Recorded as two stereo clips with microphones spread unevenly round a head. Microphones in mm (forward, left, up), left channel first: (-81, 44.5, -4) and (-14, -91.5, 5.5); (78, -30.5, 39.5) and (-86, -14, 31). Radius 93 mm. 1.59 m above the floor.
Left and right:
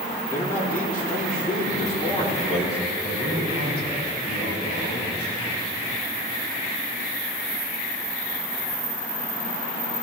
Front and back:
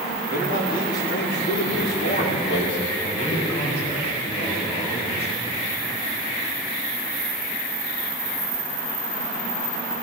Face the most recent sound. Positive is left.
turn(degrees=50)